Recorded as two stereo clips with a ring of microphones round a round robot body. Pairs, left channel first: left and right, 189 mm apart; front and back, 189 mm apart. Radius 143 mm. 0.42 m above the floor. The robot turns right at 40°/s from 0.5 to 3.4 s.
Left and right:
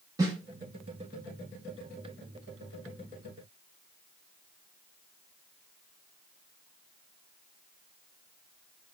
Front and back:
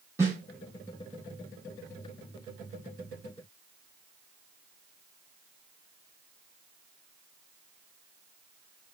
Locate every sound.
0.2 s a snare drum: 125° right, 1.1 m